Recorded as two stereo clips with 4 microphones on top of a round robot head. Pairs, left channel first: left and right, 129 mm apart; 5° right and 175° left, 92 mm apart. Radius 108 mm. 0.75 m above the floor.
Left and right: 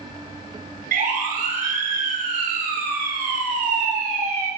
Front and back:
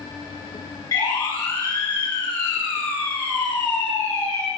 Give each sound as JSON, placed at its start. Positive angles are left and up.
{"t": 0.9, "sound": "a siren", "azimuth_deg": -65, "distance_m": 9.5}